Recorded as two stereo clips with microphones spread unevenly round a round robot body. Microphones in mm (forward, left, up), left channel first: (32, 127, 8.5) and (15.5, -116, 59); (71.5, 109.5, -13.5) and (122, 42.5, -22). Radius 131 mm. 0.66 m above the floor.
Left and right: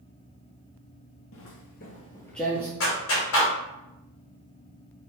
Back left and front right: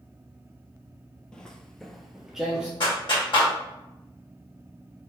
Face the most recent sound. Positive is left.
turn(degrees=105)